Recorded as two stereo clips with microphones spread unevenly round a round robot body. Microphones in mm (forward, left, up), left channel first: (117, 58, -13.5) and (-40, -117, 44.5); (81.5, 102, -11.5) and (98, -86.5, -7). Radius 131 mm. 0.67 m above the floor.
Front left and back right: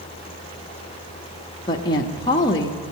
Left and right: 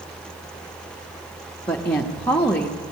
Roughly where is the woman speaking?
Ahead.